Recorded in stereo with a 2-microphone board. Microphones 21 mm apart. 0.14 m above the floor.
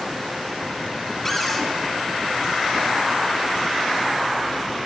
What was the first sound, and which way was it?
A cupboard door, 10° left (ahead or behind).